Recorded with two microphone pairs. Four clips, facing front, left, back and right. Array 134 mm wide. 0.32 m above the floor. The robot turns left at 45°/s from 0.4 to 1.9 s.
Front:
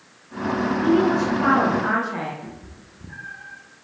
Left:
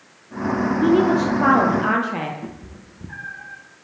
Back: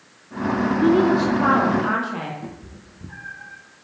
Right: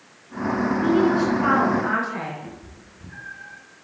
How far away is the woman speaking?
About 10 m.